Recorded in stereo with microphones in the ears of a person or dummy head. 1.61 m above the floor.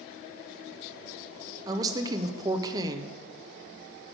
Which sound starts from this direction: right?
A woman speaking, at 1.7 s.